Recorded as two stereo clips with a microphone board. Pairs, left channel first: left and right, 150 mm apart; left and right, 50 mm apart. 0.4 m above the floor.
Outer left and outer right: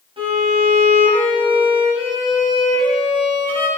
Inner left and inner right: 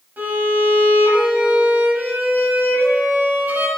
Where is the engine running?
I don't hear an engine running.